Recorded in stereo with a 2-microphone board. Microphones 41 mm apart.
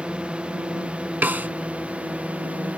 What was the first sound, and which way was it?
A drone, 25° right (ahead or behind).